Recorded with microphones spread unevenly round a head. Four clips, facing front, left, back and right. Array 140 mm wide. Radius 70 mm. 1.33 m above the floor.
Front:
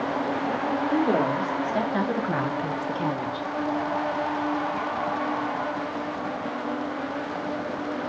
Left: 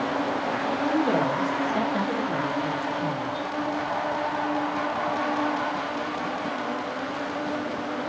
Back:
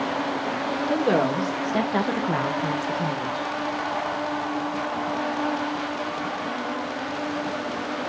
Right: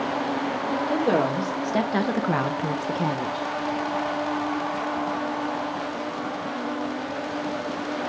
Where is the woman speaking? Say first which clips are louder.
Right 1 dB, back 2 dB; 155° right, 2.5 m; by 3.5 s 65° right, 1.4 m.